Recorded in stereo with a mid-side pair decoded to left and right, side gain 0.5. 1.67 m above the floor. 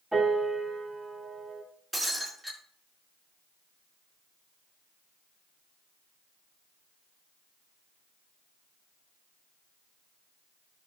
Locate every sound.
0.1 s a piano: 10° right, 5.5 m
1.9 s breaking glass: 10° right, 5.5 m